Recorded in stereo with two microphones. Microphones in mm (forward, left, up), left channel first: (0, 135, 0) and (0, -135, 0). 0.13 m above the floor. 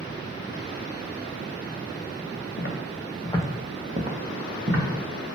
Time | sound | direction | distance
2.6 | footsteps | 50° left (ahead or behind) | 0.7 m